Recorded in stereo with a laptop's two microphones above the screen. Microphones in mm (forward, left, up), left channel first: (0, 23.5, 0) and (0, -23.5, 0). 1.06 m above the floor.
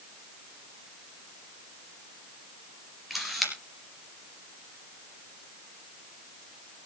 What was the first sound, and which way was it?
A camera shutter, centre (ahead or behind).